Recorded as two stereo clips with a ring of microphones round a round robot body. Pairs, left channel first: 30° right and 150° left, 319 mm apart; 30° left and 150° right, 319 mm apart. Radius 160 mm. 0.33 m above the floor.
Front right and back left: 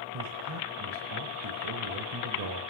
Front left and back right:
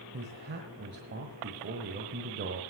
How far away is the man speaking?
About 1.3 m.